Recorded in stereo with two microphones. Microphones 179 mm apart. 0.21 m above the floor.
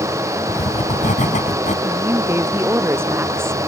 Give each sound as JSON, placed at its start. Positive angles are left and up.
{"t": 0.5, "sound": "writing", "side_deg": 45}
{"t": 1.9, "sound": "a woman speaking", "side_deg": -15}